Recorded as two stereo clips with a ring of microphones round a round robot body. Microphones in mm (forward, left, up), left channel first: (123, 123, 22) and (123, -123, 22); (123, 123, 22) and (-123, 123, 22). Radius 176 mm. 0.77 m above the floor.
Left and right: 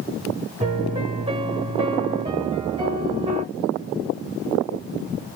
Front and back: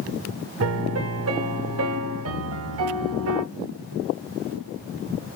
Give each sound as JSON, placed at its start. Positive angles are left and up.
{"t": 0.6, "sound": "a piano", "azimuth_deg": -165, "distance_m": 0.6}